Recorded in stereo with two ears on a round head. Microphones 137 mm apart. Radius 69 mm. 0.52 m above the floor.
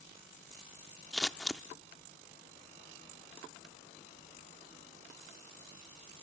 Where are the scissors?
Centre (ahead or behind), 0.7 m.